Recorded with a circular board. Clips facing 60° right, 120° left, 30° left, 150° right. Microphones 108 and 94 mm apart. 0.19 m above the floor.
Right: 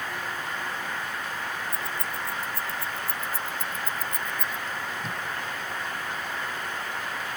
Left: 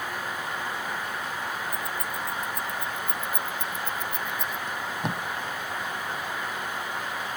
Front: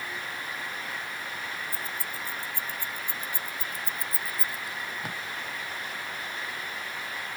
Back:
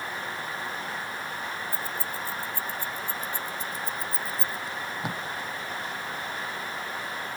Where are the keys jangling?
Straight ahead; by 4.6 s 15° right.